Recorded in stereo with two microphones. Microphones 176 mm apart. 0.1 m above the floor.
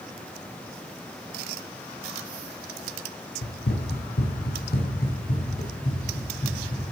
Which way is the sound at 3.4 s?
85° left.